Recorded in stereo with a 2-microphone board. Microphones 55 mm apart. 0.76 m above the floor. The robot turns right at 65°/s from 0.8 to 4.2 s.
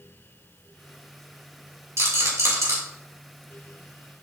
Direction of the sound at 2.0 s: 60° right (ahead or behind).